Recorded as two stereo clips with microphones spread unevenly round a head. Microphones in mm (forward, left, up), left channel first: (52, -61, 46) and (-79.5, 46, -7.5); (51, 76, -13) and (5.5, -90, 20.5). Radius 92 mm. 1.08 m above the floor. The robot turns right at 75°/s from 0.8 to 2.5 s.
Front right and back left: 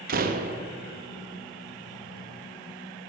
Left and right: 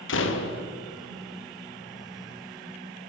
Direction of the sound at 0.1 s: 100° left.